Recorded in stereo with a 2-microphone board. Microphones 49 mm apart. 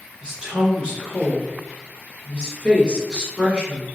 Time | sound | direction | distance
0.2 | a woman speaking | 20° right (ahead or behind) | 1.1 m